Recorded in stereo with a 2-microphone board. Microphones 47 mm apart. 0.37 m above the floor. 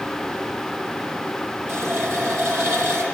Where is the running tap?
55° right (ahead or behind), 7.5 m.